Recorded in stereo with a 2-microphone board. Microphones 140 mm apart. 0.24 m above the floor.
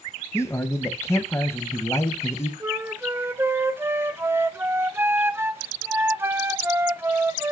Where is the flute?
15° right (ahead or behind), 0.5 m.